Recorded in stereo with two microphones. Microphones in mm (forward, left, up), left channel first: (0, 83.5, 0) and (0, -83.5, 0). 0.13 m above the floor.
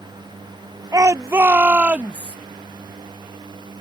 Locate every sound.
0.9 s a shout: 20° right (ahead or behind); by 2.4 s 5° right (ahead or behind)